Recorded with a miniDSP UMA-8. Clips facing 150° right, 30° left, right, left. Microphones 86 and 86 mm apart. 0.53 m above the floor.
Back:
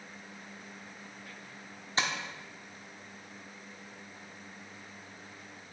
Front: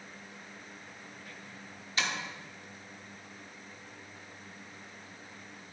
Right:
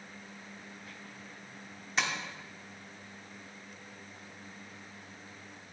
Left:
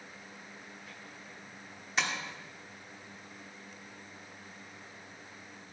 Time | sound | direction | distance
2.0 | tapping | straight behind | 1.3 m